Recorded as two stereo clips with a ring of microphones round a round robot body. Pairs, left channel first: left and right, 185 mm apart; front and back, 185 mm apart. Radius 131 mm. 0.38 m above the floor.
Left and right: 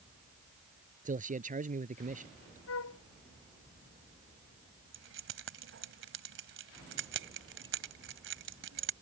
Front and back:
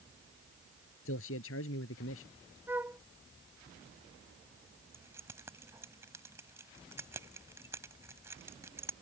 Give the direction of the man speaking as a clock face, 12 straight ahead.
1 o'clock.